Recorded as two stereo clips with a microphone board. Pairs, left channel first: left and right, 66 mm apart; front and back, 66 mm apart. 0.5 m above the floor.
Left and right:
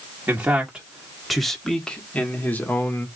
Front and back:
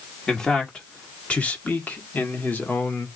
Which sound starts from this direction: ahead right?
A man speaking, at 0.3 s.